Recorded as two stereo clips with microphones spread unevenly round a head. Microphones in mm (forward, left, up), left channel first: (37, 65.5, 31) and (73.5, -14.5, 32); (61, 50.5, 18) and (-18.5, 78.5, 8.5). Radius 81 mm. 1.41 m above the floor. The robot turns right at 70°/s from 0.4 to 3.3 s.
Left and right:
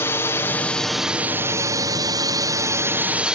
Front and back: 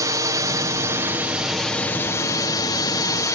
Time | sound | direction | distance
0.0 | a drone | 165° left | ?